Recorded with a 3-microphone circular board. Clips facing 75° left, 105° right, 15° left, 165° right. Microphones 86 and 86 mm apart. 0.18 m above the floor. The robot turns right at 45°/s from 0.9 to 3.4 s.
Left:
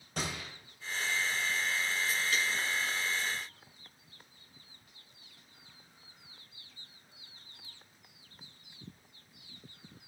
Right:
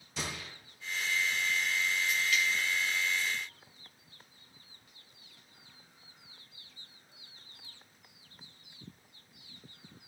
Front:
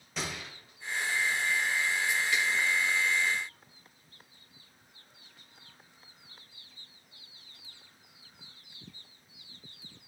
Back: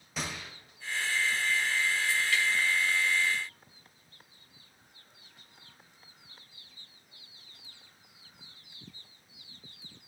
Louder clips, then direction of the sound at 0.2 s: Left 2 dB, even; 105° left.